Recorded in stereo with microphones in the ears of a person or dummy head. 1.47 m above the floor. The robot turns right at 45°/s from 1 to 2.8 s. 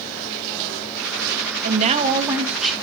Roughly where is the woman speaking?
Ahead right.